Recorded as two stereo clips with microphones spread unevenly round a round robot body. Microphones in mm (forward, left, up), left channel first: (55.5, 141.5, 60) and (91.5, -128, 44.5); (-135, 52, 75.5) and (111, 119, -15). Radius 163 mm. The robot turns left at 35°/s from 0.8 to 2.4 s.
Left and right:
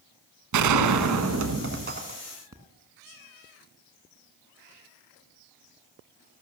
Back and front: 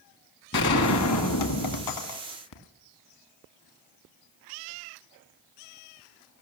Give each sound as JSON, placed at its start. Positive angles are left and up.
{"t": 0.5, "sound": "a gunshot", "azimuth_deg": -105, "distance_m": 1.3}